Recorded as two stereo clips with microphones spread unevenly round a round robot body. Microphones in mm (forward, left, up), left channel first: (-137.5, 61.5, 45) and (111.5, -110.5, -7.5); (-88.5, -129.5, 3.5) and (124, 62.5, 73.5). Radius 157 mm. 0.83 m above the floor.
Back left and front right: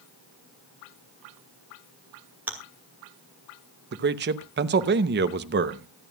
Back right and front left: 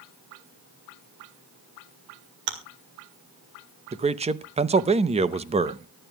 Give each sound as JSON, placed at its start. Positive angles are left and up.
{"t": 2.5, "sound": "chewing", "azimuth_deg": 50, "distance_m": 2.0}
{"t": 3.9, "sound": "a man speaking", "azimuth_deg": -35, "distance_m": 0.8}